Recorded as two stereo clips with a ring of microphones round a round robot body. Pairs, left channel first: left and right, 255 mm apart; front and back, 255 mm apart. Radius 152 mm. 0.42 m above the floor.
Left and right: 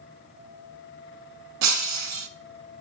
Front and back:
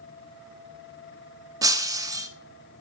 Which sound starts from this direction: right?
Breaking glass, at 1.6 s.